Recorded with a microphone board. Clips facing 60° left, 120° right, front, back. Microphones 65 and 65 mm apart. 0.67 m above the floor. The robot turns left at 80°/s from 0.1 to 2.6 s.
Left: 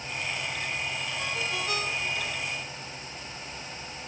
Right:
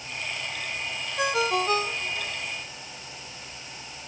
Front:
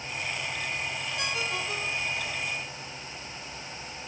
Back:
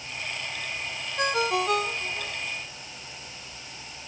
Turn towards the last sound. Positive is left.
turn(degrees=120)